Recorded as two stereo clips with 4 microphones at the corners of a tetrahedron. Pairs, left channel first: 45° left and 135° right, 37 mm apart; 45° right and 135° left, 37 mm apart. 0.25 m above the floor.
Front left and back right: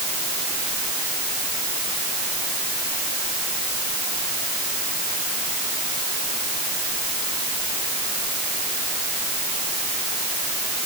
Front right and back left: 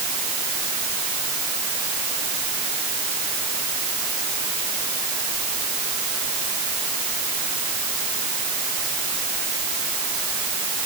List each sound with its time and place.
Only background noise.